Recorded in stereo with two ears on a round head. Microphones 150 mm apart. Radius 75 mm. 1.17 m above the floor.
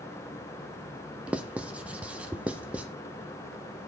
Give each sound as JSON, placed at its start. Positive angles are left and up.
{"t": 1.3, "sound": "writing", "side_deg": -10, "distance_m": 0.6}